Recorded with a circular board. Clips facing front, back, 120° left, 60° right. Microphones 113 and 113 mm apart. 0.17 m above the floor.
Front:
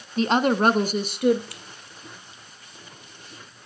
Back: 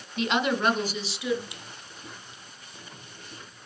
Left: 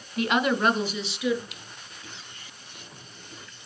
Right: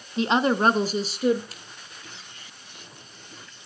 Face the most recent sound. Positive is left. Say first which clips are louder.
# even, even
turn(degrees=-110)